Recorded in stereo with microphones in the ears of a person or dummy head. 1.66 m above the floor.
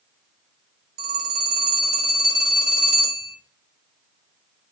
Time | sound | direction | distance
1.0 | a phone ringing | 55° right (ahead or behind) | 2.5 m